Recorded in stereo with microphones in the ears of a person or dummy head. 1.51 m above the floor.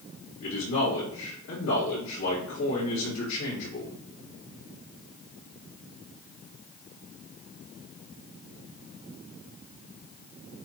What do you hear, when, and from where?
0.4 s a man speaking: 70° left (ahead or behind), 2 m